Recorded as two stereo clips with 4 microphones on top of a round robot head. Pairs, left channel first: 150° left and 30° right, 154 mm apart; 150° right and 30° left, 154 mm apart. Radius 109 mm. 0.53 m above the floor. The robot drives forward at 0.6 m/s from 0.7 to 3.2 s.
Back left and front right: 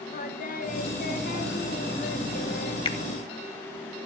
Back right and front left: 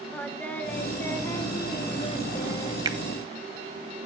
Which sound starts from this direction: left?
A finger snap, at 2.9 s.